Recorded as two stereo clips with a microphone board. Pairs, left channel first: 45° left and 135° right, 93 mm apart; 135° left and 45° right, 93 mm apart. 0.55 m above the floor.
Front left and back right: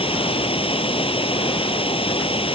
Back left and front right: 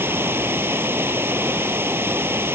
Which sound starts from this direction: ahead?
Running water, at 0.0 s.